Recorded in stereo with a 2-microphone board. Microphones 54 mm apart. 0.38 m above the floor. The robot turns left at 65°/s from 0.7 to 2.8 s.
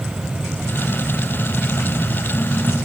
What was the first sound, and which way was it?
Only background noise.